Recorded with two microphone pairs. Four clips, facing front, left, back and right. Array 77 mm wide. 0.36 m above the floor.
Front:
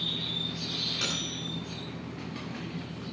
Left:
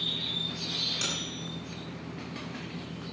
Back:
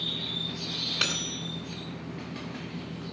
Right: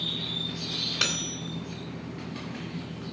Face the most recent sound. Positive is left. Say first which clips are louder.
# right 7 dB, back 4 dB
turn(degrees=-135)